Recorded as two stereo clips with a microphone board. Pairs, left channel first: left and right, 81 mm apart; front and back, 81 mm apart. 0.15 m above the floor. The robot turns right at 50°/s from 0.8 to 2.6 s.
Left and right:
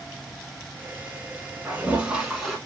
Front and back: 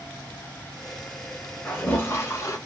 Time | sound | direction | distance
1.6 | a toilet flushing | 45° right | 1.0 m